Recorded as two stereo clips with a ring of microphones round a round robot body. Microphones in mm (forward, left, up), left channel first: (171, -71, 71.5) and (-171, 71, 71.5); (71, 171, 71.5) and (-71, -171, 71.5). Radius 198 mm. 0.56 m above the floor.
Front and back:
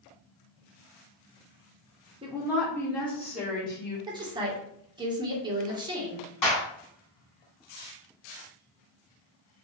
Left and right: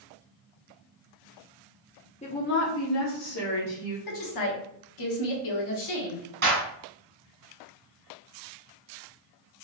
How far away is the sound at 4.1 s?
About 1.4 m.